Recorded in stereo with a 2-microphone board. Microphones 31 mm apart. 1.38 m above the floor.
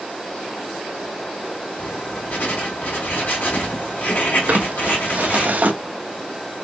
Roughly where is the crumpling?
Right.